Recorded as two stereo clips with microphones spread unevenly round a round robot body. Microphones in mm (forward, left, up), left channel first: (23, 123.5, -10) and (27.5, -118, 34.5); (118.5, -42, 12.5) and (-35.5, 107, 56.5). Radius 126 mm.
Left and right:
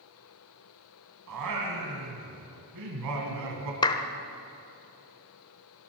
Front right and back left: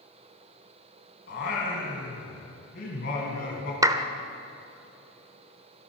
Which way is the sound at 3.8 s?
55° left.